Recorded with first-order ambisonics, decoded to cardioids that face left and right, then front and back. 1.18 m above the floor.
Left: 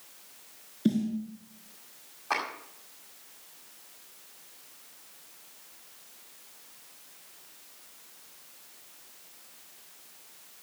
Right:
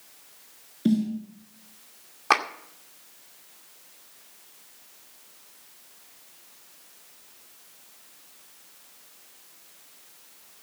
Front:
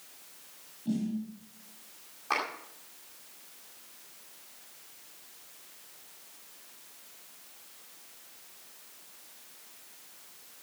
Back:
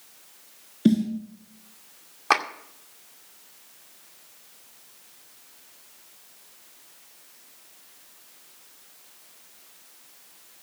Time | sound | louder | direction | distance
0.8 | a snare drum | right 3 dB, back 11 dB | 175° right | 4.5 m
2.3 | a clap | right 8 dB, back 9 dB | 135° right | 2 m